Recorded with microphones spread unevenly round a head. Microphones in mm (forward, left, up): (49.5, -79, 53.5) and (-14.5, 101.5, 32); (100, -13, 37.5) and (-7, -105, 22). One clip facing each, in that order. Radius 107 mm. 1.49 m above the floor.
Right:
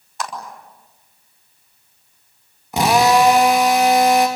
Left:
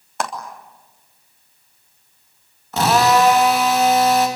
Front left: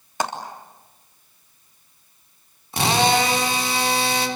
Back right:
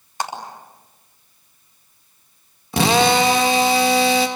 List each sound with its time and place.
0.2 s a clap: 70° left, 3 m
2.7 s a drill: 150° right, 2.5 m